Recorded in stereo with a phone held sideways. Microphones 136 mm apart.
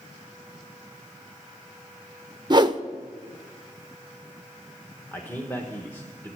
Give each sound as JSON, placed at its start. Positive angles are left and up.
{"t": 2.5, "sound": "a whoosh", "side_deg": -30, "distance_m": 0.6}
{"t": 5.1, "sound": "a man speaking", "side_deg": 15, "distance_m": 1.3}